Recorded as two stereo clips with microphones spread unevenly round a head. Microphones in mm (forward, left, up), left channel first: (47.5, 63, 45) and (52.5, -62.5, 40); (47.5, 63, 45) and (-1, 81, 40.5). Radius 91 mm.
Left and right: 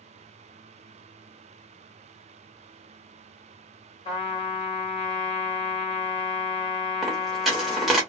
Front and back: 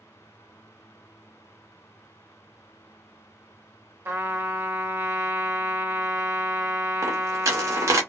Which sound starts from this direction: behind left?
A trumpet, at 4.0 s.